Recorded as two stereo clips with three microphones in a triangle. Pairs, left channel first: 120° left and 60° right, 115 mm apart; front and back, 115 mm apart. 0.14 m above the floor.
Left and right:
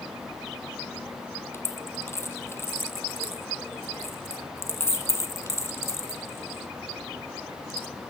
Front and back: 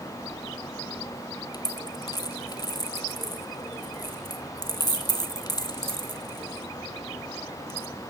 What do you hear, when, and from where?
1.5 s a dropped coin: 55° left, 0.6 m